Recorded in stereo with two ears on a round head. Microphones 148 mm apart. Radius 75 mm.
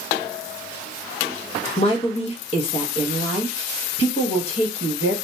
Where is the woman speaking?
40° left (ahead or behind), 0.9 m.